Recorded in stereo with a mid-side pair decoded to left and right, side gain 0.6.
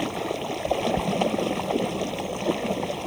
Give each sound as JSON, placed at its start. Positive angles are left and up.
{"t": 0.0, "sound": "running water", "azimuth_deg": 0}